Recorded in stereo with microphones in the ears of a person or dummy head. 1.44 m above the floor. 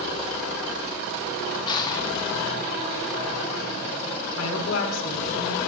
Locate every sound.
1.7 s crushing: 25° left (ahead or behind), 0.8 m
4.4 s a woman speaking: 75° left (ahead or behind), 1.6 m